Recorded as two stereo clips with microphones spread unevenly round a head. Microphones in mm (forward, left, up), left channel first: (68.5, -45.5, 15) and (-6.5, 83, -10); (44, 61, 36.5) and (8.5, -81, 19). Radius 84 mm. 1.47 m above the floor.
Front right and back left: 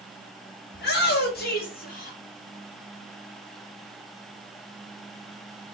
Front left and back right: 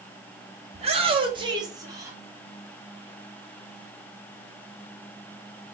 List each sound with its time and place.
0.7 s a shout: 60° right, 2.5 m; by 2.2 s 30° right, 3.5 m